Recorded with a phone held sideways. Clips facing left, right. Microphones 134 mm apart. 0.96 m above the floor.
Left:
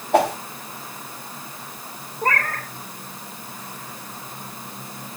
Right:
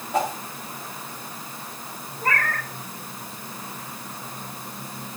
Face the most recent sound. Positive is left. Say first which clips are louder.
# left 2 dB
turn(degrees=40)  # may be behind; listen again after turning